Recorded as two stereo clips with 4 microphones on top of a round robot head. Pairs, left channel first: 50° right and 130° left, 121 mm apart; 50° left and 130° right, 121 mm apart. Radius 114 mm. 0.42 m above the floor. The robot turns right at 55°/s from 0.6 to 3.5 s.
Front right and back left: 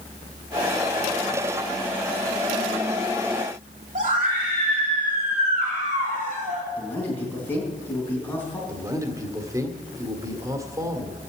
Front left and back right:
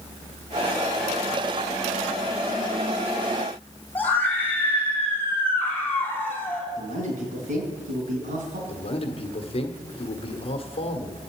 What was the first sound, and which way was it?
A scream, 125° left.